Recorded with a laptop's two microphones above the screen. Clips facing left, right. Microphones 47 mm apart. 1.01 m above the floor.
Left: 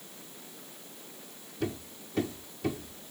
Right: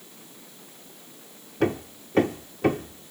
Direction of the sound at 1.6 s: 60° right (ahead or behind).